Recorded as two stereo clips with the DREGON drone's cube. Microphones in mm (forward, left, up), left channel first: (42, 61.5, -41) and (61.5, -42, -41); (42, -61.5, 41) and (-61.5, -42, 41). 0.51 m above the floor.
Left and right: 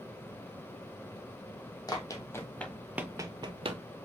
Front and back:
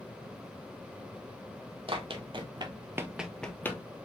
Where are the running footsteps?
150° left, 1.1 m; by 3.8 s 75° right, 0.8 m.